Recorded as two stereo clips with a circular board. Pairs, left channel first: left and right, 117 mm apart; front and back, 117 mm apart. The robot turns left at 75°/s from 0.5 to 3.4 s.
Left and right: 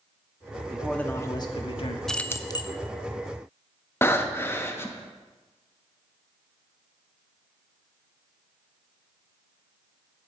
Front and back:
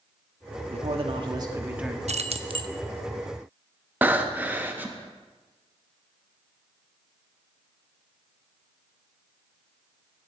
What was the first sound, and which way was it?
A man speaking, 175° right.